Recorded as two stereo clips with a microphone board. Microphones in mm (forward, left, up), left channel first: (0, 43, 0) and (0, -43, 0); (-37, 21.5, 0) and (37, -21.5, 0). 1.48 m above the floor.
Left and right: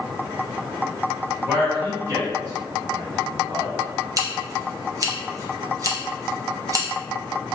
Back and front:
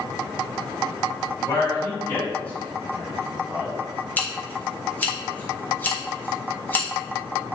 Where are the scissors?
140° right, 0.7 m.